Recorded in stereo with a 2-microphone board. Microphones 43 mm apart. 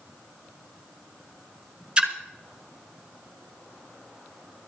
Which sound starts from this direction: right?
A splash, at 2.0 s.